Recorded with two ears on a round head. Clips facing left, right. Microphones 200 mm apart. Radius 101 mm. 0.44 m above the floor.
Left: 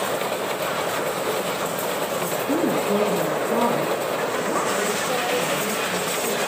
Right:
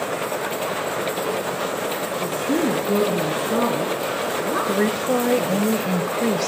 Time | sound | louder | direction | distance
2.2 | a woman speaking | right 2 dB | 10° right (ahead or behind) | 4.5 m
4.7 | a woman speaking | right 4 dB | 55° right (ahead or behind) | 2 m